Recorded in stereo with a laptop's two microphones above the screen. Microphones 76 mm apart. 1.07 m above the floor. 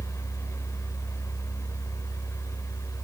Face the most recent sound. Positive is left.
turn(degrees=40)  # may be behind; listen again after turning